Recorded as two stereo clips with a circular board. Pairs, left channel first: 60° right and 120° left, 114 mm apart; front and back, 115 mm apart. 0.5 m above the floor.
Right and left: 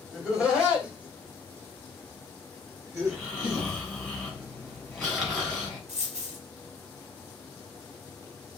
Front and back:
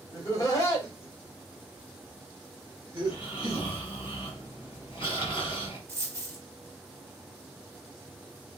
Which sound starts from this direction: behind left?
A dropped coin, at 5.9 s.